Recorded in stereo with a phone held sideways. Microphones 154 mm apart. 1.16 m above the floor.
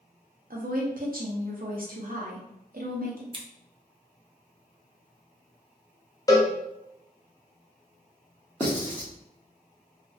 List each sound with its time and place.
0.5 s a woman speaking: 70° right (ahead or behind), 0.8 m
3.3 s scissors: 35° right (ahead or behind), 0.5 m
6.3 s a cowbell: 25° left (ahead or behind), 0.5 m
8.6 s writing: 15° left (ahead or behind), 0.9 m